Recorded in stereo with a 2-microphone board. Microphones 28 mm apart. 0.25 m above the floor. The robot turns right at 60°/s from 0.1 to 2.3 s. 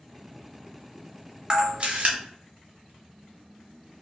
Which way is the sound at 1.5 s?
25° right (ahead or behind).